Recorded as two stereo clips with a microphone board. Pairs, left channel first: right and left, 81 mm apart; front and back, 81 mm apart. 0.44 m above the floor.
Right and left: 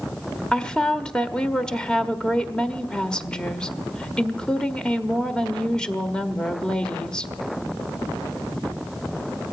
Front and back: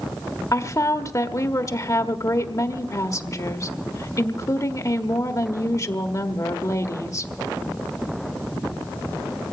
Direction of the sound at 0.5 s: 15° right.